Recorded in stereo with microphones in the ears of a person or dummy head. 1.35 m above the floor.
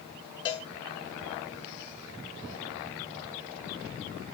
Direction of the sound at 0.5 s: 20° left (ahead or behind).